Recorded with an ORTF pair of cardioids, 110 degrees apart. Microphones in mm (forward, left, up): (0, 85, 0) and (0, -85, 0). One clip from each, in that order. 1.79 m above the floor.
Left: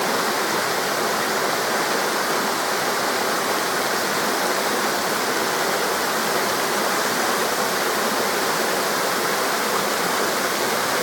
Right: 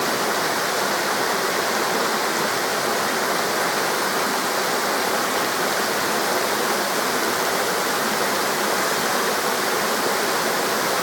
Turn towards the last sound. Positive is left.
No sound to turn to.